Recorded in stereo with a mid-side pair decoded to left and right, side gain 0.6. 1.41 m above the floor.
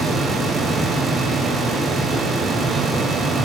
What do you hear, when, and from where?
0.0 s a fan: 35° right, 0.7 m